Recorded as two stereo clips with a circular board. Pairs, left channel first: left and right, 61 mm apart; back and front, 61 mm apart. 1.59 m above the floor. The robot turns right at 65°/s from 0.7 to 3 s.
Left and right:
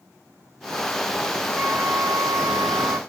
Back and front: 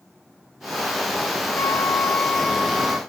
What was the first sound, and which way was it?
A flute, 150° right.